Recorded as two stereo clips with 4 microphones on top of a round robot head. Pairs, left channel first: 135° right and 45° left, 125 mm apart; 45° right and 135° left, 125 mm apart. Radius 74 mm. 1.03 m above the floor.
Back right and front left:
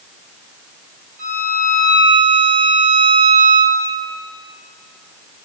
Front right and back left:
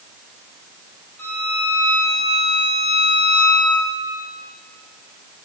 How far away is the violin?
About 3 m.